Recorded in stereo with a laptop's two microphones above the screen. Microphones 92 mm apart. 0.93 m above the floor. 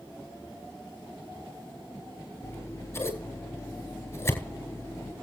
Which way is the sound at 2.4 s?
25° left (ahead or behind).